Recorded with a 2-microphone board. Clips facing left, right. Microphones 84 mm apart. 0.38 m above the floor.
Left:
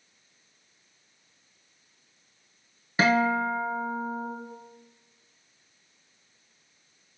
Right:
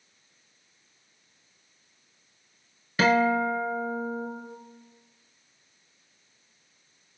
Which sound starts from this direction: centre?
A guitar, at 3.0 s.